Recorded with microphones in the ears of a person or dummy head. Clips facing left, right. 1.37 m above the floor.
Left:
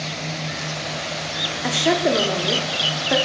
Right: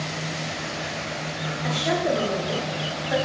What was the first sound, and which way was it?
A woman speaking, 55° left (ahead or behind).